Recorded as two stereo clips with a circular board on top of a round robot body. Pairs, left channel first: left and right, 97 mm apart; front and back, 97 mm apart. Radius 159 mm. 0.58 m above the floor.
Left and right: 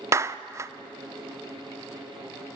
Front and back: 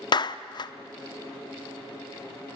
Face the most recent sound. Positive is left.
turn(degrees=-35)